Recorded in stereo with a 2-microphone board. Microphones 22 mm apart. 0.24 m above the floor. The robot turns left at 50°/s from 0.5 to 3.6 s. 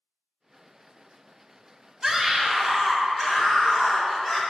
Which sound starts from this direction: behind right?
A scream, at 2.0 s.